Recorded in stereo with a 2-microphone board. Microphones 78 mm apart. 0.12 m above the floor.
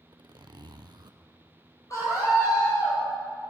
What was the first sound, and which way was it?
A zipper, 65° right (ahead or behind).